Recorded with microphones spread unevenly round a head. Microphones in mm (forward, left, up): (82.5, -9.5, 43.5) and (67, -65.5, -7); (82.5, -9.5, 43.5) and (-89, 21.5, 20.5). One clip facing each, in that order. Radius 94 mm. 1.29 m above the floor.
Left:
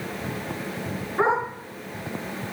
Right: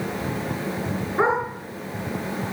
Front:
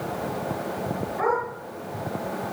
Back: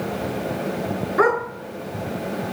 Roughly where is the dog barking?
Behind.